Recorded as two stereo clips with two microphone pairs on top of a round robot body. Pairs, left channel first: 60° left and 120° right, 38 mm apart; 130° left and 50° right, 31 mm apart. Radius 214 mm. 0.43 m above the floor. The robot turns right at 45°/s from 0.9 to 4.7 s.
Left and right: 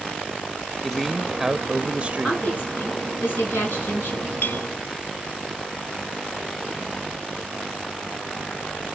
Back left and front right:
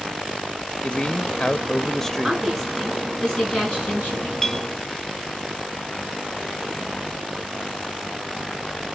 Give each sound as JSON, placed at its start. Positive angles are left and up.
{"t": 0.8, "sound": "a man speaking", "azimuth_deg": 160, "distance_m": 0.8}
{"t": 2.2, "sound": "a woman speaking", "azimuth_deg": 15, "distance_m": 7.5}
{"t": 4.4, "sound": "a clink", "azimuth_deg": 60, "distance_m": 0.9}